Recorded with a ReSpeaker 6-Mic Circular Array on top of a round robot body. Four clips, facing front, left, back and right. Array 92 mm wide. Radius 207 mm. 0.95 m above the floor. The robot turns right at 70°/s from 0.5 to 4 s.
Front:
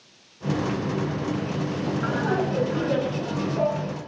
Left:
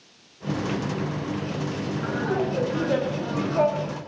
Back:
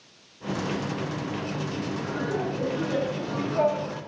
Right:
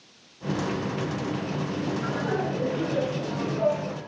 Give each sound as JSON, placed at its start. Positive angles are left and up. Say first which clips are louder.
{"t": 2.0, "sound": "laughter", "louder": "left 6 dB, front 5 dB", "azimuth_deg": 0, "distance_m": 6.5}